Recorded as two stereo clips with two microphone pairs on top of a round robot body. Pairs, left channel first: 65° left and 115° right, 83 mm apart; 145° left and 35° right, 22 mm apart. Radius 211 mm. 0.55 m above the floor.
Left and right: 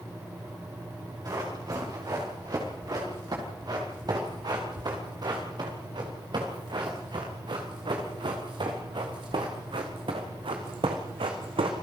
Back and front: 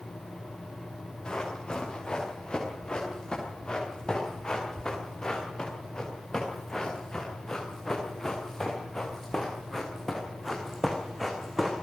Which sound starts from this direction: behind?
Running footsteps, at 1.2 s.